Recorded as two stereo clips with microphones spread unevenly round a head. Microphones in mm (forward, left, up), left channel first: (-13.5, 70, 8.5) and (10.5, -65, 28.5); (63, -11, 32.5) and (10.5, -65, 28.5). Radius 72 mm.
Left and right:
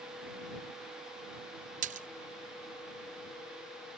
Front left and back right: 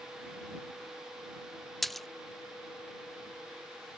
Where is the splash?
40° right.